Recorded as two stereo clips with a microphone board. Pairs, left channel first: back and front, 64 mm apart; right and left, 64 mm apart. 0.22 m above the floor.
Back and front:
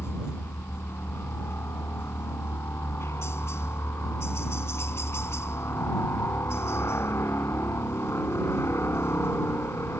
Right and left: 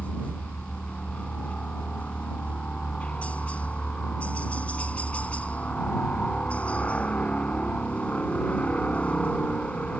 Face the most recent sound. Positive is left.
turn(degrees=-155)